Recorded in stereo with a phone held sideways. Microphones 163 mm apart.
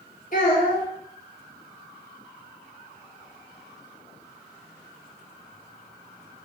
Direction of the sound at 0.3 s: 60° left (ahead or behind).